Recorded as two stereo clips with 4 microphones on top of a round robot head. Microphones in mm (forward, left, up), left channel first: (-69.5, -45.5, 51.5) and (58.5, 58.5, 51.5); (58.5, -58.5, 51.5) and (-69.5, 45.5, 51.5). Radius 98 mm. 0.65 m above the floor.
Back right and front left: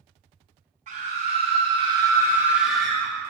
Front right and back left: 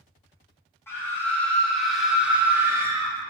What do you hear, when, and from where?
0.9 s a scream: 30° left, 1.4 m; by 3.1 s 165° left, 1.0 m